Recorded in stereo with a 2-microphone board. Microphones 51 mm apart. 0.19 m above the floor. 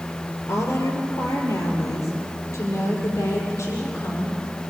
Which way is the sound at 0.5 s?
65° left (ahead or behind).